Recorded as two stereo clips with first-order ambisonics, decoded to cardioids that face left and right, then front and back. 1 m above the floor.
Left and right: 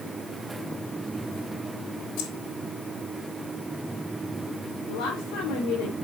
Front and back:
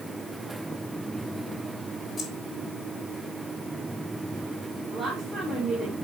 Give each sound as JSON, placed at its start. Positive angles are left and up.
{"t": 2.2, "sound": "keys jangling", "azimuth_deg": 75, "distance_m": 1.6}
{"t": 4.9, "sound": "a woman speaking", "azimuth_deg": 105, "distance_m": 3.5}